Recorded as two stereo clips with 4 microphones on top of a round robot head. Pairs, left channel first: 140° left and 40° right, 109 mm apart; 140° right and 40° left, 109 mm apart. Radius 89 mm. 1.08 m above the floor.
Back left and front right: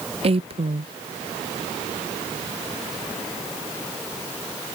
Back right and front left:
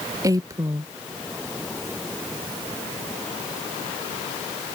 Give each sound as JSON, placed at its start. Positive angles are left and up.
{"t": 0.2, "sound": "a woman speaking", "azimuth_deg": -20}